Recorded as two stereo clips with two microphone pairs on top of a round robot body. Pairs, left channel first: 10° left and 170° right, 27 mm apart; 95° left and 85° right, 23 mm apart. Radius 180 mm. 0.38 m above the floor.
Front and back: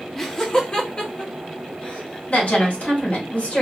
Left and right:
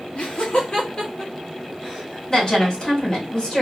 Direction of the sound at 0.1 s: 80° left.